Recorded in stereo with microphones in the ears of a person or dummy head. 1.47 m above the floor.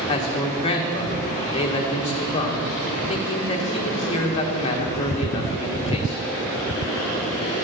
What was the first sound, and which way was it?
A man speaking, 35° left (ahead or behind).